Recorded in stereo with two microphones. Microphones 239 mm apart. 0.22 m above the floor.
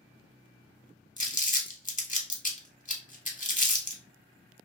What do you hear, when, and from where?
1.2 s crumpling: 35° left (ahead or behind), 0.6 m